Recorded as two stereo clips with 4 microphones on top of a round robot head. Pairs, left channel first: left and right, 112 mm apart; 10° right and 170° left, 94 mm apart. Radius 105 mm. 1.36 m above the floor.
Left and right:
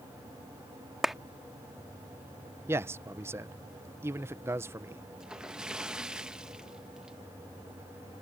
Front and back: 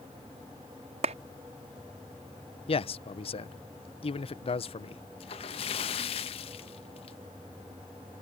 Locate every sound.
1.0 s a clap: straight behind
2.7 s a man speaking: 20° right
5.2 s a splash: 5° right